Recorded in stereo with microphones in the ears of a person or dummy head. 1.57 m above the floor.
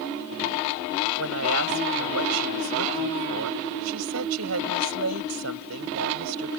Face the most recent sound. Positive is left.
turn(degrees=-85)